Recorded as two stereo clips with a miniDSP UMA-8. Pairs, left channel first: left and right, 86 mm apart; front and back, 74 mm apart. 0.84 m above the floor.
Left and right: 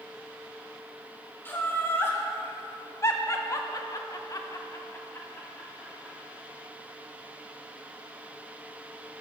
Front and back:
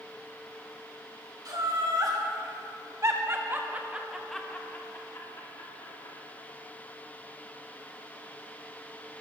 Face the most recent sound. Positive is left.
turn(degrees=10)